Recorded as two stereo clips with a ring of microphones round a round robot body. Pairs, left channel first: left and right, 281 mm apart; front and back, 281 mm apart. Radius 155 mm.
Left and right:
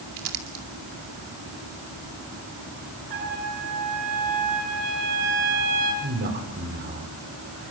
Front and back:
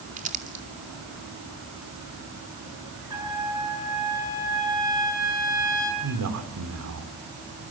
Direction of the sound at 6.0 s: 150° right.